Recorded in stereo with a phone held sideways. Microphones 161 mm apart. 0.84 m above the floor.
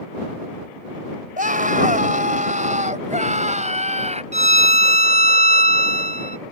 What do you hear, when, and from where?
1.4 s a scream: 55° right (ahead or behind); by 4.2 s 45° right (ahead or behind)
4.3 s a violin: 45° right (ahead or behind)